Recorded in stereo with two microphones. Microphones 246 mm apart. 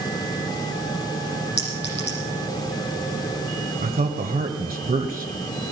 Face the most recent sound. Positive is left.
turn(degrees=-35)  # may be behind; listen again after turning